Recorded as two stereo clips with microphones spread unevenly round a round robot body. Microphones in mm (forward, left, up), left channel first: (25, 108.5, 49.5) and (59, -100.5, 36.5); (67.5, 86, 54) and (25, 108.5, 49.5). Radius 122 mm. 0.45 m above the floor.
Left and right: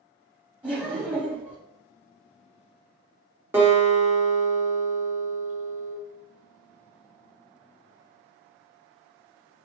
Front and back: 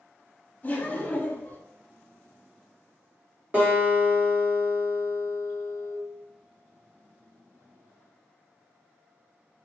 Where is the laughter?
10° right, 1.0 m.